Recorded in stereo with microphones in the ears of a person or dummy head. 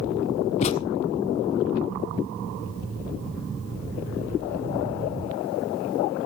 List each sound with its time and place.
0.6 s a thud: 40° left (ahead or behind), 1.2 m